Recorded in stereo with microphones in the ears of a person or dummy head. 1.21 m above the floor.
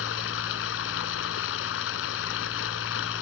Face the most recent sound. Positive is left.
turn(degrees=80)